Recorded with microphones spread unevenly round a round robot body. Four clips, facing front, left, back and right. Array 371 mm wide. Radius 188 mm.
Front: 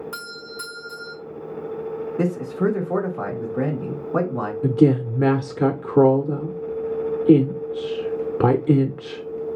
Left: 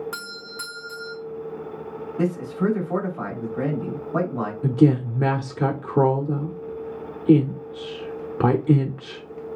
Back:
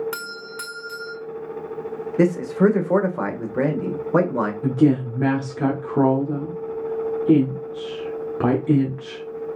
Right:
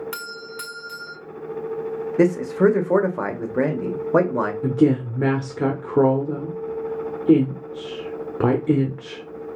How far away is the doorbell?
About 1.7 m.